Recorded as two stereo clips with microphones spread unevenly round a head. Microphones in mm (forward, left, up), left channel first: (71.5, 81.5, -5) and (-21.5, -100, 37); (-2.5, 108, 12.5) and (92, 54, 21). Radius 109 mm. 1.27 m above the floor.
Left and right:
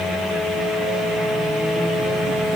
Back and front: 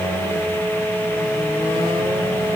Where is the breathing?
I don't hear breathing.